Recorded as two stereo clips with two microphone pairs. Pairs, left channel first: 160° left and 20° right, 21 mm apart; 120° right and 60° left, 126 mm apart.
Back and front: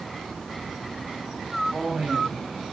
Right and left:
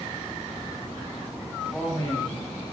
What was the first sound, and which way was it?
A man speaking, 55° right.